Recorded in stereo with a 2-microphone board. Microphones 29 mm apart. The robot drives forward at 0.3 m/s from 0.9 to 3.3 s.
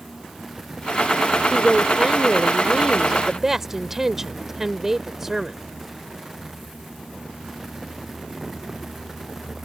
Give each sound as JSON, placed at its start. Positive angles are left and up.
{"t": 1.5, "sound": "a woman speaking", "side_deg": -15}